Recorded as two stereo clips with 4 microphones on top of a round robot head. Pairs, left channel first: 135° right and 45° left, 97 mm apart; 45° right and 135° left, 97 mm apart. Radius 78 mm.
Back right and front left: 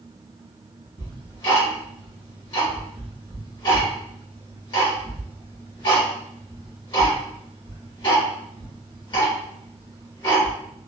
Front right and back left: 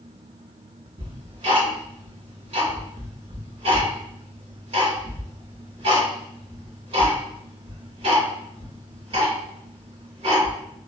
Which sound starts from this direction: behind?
Ticking, at 1.0 s.